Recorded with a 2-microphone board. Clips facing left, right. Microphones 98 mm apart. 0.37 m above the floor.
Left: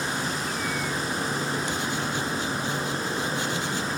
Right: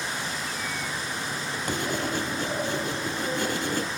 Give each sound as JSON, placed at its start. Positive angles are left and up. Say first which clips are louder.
{"t": 0.0, "sound": "an insect", "louder": "left 3 dB", "side_deg": 35, "distance_m": 1.0}
{"t": 1.7, "sound": "writing", "louder": "even", "side_deg": -50, "distance_m": 2.5}